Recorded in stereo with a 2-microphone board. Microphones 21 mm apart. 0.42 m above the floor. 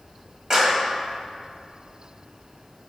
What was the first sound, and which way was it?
A clap, 25° right (ahead or behind).